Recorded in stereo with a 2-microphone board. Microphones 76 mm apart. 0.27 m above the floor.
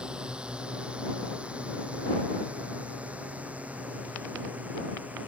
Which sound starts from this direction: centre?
A drone, at 0.0 s.